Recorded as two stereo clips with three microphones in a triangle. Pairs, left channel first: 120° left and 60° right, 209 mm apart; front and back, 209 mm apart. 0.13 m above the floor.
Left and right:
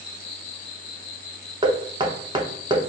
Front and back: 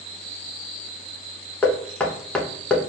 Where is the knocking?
75° right, 0.7 m.